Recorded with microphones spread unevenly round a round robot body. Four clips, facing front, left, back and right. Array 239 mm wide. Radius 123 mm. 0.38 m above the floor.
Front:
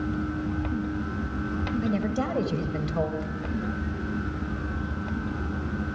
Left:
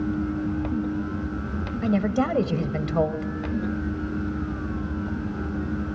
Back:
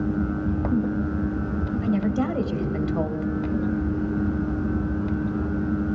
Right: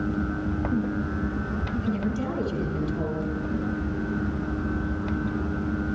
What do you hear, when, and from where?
1.8 s a woman speaking: 95° left, 2 m